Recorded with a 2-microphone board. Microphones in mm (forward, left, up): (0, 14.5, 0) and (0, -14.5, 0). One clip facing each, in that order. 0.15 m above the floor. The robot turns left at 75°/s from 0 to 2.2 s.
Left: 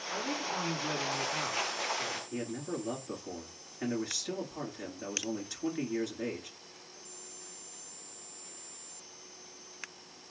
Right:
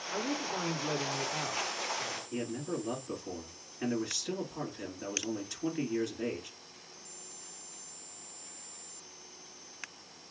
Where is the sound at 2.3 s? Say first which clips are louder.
Right 1 dB; centre (ahead or behind), 1.9 m.